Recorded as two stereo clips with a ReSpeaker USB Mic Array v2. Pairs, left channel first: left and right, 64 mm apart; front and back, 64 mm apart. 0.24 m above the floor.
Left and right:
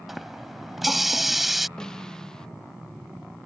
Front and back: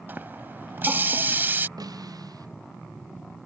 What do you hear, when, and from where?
0.1 s a running tap: 175° right
1.8 s a snare drum: 170° left